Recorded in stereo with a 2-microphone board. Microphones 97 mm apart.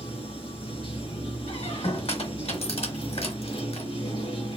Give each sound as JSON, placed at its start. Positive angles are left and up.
{"t": 0.0, "sound": "running water", "side_deg": 65, "distance_m": 2.5}
{"t": 1.5, "sound": "a squeak", "side_deg": 70, "distance_m": 1.2}